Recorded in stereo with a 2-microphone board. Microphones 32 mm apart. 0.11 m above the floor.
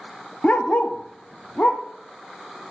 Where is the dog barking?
45° left (ahead or behind), 0.7 m; by 1.8 s 75° left (ahead or behind), 1.6 m.